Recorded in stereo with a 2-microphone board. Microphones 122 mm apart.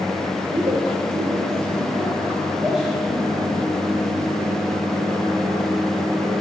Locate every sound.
0.4 s a woman speaking: 70° right (ahead or behind), 2 m; by 3.5 s 5° left (ahead or behind), 3.5 m